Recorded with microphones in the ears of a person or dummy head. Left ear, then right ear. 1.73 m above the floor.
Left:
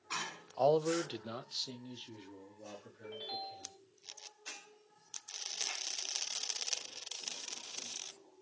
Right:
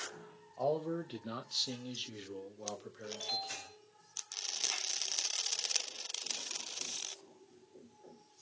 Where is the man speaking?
75° left (ahead or behind), 0.6 m; by 3.7 s 35° right (ahead or behind), 1.9 m.